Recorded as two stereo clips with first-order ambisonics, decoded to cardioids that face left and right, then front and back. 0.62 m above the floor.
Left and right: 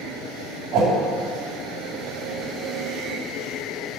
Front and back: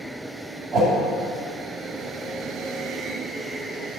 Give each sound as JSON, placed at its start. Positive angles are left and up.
{"t": 0.7, "sound": "a whoosh", "azimuth_deg": -120, "distance_m": 2.0}